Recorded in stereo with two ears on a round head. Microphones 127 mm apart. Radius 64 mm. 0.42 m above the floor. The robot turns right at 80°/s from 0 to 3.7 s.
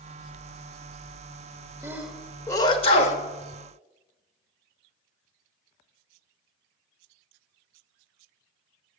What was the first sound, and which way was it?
A sneeze, 20° right (ahead or behind).